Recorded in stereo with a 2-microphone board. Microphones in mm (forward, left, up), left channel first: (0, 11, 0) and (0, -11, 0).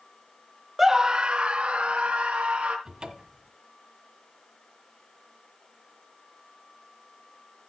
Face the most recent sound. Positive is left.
turn(degrees=-30)  # may be behind; listen again after turning